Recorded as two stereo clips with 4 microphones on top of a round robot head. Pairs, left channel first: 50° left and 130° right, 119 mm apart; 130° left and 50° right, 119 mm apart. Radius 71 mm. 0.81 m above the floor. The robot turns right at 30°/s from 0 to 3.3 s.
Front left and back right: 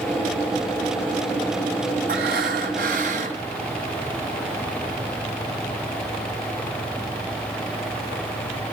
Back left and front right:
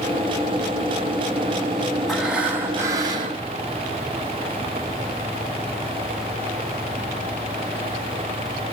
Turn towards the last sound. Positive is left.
turn(degrees=-100)